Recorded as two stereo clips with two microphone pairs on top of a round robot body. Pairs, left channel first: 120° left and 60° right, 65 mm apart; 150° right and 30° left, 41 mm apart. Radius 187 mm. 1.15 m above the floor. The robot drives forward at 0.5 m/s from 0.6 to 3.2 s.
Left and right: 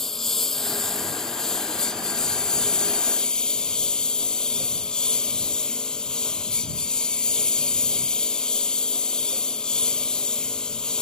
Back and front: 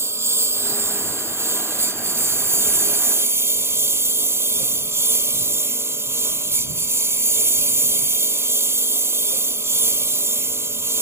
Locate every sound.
0.0 s a lawn mower: 30° left; by 11.0 s 35° left